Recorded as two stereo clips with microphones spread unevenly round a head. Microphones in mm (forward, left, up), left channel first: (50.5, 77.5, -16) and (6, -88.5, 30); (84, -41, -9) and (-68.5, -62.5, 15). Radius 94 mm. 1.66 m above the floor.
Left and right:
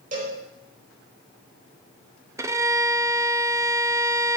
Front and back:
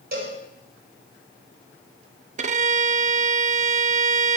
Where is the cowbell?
155° right, 5 m.